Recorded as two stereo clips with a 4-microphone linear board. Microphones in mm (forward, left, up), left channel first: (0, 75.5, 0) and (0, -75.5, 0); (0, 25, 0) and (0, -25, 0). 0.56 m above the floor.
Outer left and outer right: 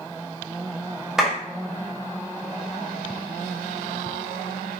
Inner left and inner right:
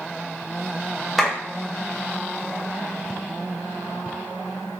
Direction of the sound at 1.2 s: 5° right (ahead or behind).